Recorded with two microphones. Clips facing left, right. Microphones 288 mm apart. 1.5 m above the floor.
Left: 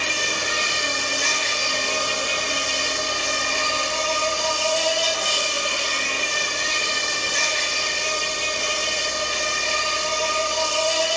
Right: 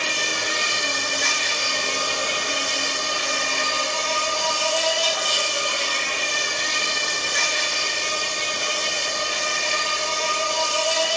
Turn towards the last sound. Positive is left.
turn(degrees=30)  # may be behind; listen again after turning